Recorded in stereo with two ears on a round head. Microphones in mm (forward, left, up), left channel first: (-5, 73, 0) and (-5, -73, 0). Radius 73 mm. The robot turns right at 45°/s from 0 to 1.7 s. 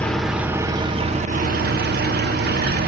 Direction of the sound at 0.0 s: 170° left.